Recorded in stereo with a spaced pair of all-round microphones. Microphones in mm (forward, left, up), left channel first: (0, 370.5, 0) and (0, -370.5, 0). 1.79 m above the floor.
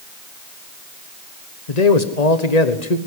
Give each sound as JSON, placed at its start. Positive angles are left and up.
{"t": 1.7, "sound": "a man speaking", "side_deg": 65, "distance_m": 1.4}